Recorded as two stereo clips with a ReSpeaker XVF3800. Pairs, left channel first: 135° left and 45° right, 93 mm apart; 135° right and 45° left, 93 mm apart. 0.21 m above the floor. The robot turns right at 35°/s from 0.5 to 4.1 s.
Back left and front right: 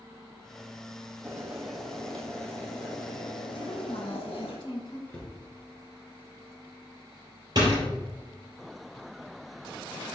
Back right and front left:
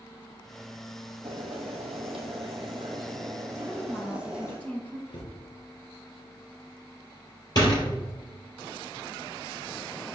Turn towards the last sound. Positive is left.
turn(degrees=-90)